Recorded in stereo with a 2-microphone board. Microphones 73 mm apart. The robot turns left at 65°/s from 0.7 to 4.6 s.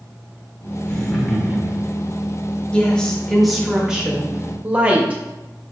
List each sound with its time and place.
0.8 s laughter: 25° left, 1.2 m; by 2.0 s 50° right, 1.2 m
2.7 s a woman speaking: 15° left (ahead or behind), 0.8 m; by 5.2 s 20° right (ahead or behind), 0.8 m